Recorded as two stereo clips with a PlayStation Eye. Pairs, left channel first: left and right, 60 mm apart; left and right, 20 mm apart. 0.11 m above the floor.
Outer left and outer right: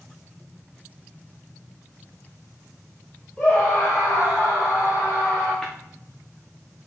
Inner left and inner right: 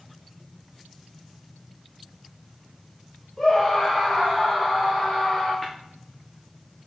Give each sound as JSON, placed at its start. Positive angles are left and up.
{"t": 3.4, "sound": "a scream", "side_deg": 20, "distance_m": 3.0}
{"t": 5.6, "sound": "tapping", "side_deg": 15, "distance_m": 3.0}